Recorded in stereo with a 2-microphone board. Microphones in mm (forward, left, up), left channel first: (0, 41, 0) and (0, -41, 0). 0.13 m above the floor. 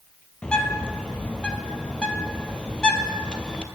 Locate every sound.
0.4 s a bird: 10° left (ahead or behind), 0.8 m